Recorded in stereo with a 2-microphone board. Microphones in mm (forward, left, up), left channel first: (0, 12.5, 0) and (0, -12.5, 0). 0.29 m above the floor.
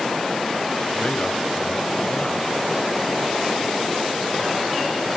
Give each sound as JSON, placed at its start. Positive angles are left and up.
{"t": 0.9, "sound": "a man speaking", "side_deg": 50, "distance_m": 1.4}